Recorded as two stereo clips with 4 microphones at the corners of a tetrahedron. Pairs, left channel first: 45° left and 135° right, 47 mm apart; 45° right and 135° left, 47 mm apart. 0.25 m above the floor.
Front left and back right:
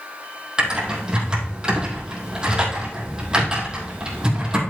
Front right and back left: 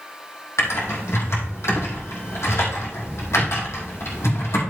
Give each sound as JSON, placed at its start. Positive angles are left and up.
{"t": 0.6, "sound": "typing on a keyboard", "azimuth_deg": -60, "distance_m": 3.5}